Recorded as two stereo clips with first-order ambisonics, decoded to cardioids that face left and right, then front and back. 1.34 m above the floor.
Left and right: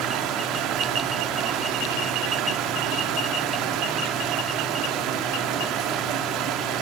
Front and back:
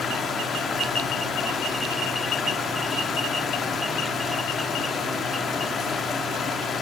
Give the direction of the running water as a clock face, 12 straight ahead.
2 o'clock.